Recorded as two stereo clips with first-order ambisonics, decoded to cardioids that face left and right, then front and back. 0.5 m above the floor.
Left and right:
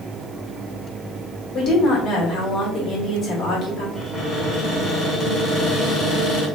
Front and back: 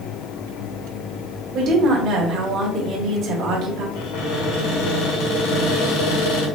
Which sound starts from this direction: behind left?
A woman speaking, at 1.5 s.